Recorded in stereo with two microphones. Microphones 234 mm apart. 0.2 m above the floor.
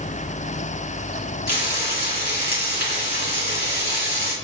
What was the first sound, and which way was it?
Frying, 45° left (ahead or behind).